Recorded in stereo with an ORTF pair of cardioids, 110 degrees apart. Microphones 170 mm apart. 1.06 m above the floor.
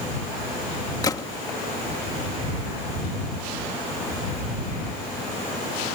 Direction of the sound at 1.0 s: 20° left.